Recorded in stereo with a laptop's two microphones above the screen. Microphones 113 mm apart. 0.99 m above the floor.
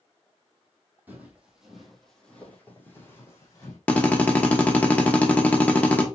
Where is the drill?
15° left (ahead or behind), 1.0 m.